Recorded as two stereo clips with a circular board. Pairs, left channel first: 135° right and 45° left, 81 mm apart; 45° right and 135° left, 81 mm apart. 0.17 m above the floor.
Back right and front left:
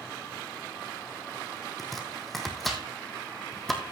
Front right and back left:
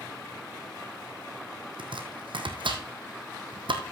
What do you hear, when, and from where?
1.8 s chopping: 135° left, 1.8 m